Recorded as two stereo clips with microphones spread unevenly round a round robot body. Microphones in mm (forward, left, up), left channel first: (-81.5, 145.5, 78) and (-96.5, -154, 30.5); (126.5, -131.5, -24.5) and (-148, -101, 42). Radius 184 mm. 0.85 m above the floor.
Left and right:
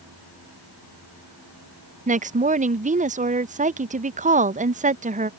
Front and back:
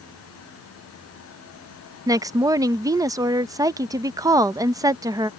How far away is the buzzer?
No buzzer in this recording.